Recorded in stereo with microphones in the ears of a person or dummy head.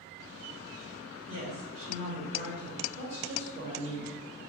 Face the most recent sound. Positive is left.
turn(degrees=-30)  # may be behind; listen again after turning